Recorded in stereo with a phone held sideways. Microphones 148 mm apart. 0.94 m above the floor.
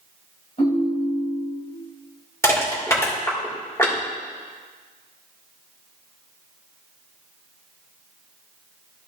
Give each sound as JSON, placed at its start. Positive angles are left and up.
{"t": 0.6, "sound": "a ringtone", "side_deg": 45, "distance_m": 3.0}
{"t": 2.4, "sound": "crushing", "side_deg": 20, "distance_m": 2.5}